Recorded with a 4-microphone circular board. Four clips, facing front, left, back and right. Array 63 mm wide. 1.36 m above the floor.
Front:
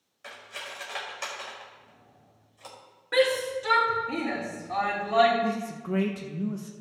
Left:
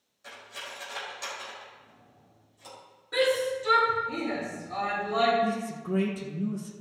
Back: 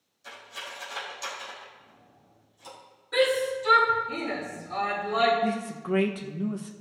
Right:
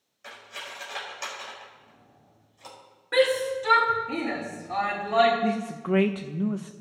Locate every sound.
0.2 s cutlery clinking: 30° right, 3.5 m
3.1 s a shout: 50° right, 4.5 m
5.4 s a man speaking: 100° right, 0.9 m